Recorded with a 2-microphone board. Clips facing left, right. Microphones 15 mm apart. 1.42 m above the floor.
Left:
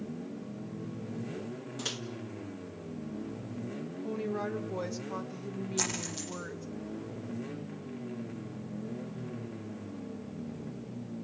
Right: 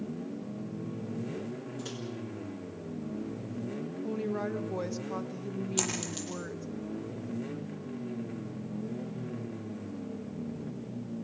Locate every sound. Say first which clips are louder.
1.8 s a microwave: left 8 dB; 45° left (ahead or behind), 1.4 m
4.0 s a woman speaking: right 1 dB; 5° right (ahead or behind), 1.2 m
5.8 s a dropped coin: left 1 dB; 40° right (ahead or behind), 8.5 m